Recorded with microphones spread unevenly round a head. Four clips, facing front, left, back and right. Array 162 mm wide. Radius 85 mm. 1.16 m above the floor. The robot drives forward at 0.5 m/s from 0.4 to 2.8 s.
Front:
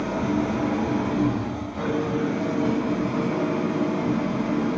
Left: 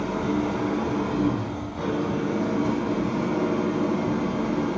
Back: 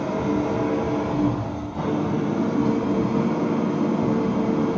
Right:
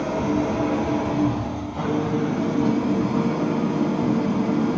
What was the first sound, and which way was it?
An engine running, 125° right.